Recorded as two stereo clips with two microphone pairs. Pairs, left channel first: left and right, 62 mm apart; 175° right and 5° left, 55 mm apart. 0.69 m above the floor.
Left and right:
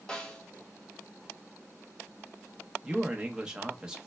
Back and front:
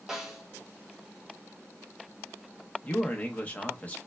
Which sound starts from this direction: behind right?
A man speaking, at 2.8 s.